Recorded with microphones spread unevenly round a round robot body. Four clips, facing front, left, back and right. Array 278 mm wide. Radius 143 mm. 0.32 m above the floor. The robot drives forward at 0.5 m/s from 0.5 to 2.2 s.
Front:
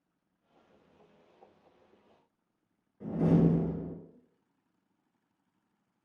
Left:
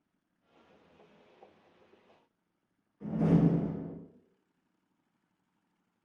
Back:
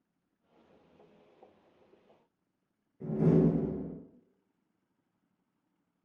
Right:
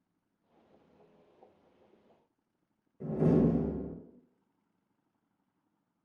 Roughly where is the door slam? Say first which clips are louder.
Right 1 dB, even; right.